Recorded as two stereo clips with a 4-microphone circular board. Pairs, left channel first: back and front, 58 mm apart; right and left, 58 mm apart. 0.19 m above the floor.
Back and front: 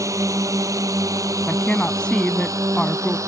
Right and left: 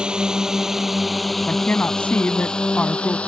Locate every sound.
0.0 s a drone: 15° left; by 3.3 s 20° right
1.4 s a woman speaking: 120° right